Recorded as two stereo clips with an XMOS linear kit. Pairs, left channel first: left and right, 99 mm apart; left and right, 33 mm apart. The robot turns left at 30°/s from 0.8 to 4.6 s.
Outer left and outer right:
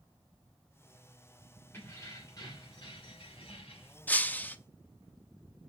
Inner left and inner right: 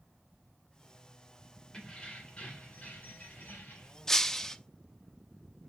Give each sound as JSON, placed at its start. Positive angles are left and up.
{"t": 1.7, "sound": "keys jangling", "azimuth_deg": 155, "distance_m": 3.0}
{"t": 4.1, "sound": "breaking glass", "side_deg": 20, "distance_m": 0.5}